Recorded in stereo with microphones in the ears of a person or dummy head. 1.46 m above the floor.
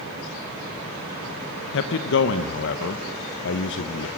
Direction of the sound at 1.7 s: 70° left (ahead or behind).